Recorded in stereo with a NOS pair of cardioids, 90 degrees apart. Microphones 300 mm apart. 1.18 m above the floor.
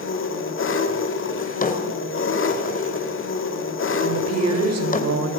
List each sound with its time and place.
0.0 s an engine running: 45° left, 3 m
1.4 s a drawer: 30° left, 3 m
4.0 s a woman speaking: 60° right, 5.5 m